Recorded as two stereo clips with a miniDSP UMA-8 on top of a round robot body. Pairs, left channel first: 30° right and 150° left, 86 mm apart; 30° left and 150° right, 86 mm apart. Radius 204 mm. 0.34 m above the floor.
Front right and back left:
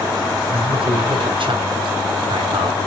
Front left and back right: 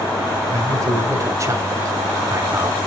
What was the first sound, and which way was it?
A man speaking, 160° left.